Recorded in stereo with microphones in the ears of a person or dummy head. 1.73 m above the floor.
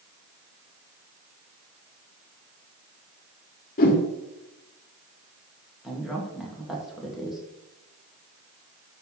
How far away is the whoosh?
About 1.6 m.